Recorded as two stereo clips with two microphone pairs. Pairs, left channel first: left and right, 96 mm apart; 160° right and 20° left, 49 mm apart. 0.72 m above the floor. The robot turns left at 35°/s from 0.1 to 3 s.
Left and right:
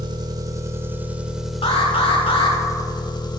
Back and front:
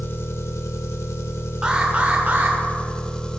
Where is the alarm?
95° left, 1.7 m; by 2.6 s 60° left, 1.7 m.